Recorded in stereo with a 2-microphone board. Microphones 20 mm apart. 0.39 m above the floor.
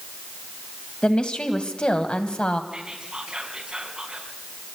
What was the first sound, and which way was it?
A woman speaking, 55° left (ahead or behind).